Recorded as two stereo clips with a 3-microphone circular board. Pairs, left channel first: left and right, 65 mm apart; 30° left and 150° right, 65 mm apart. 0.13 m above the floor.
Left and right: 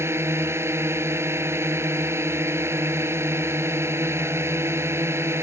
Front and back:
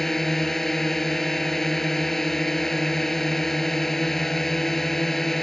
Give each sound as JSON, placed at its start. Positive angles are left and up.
{"t": 0.0, "sound": "a drone", "azimuth_deg": -55}